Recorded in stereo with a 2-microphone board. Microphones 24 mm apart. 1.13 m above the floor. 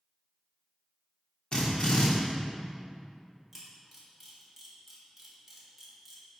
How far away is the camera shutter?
About 1.6 m.